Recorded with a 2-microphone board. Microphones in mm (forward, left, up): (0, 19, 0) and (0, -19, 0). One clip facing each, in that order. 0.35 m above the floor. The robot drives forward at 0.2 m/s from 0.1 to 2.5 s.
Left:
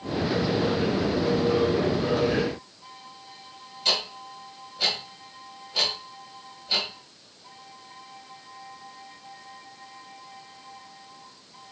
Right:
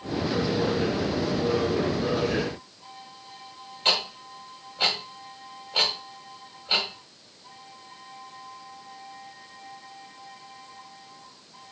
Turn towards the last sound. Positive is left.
turn(degrees=-35)  # may be behind; listen again after turning